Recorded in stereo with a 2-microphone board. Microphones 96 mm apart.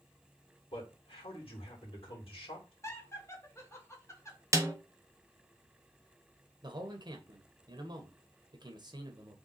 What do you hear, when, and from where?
0.7 s a man speaking: 75° left (ahead or behind), 2.5 m
2.8 s laughter: 30° left (ahead or behind), 1.8 m
4.5 s a snare drum: 30° right (ahead or behind), 0.7 m
6.6 s a man speaking: 50° right (ahead or behind), 1.0 m